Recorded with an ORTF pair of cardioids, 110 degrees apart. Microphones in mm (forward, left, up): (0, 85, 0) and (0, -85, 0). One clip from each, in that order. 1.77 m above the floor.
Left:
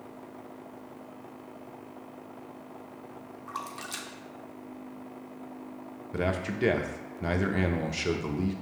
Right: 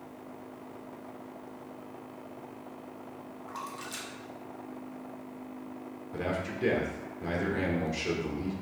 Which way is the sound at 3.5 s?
25° left.